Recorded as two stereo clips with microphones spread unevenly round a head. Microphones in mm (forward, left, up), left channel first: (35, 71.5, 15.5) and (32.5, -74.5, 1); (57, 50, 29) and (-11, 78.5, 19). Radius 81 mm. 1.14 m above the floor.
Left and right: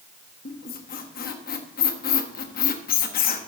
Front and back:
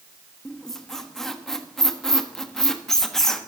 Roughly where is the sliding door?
I don't hear a sliding door.